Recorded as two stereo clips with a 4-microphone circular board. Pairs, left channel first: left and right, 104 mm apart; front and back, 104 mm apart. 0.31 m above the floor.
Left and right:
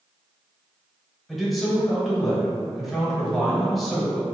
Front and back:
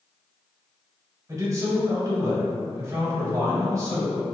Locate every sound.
1.3 s a man speaking: straight behind, 1.0 m